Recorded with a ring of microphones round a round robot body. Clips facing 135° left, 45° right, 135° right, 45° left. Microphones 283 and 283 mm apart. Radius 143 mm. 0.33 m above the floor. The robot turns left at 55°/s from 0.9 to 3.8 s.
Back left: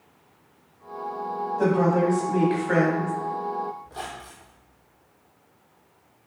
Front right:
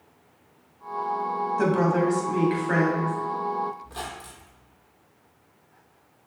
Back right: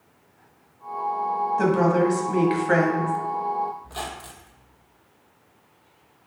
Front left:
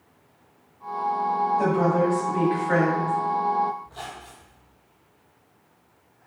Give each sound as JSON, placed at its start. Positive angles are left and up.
{"t": 1.6, "sound": "a woman speaking", "azimuth_deg": -80, "distance_m": 2.0}
{"t": 3.8, "sound": "a squeak", "azimuth_deg": -115, "distance_m": 1.2}